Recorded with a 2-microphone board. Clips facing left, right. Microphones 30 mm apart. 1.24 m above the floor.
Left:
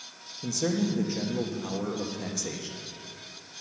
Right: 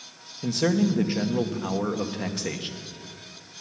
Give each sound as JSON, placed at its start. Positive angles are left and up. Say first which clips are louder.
{"t": 0.4, "sound": "a man speaking", "louder": "right 5 dB", "side_deg": -45, "distance_m": 1.2}